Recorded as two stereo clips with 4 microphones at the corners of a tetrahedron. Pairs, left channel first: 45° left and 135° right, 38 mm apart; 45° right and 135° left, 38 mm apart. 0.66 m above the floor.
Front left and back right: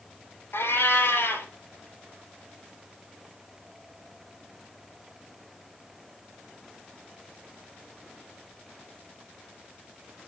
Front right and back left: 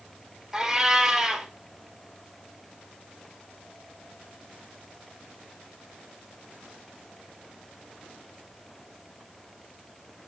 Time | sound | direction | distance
0.5 | a cat meowing | 55° left | 2.5 m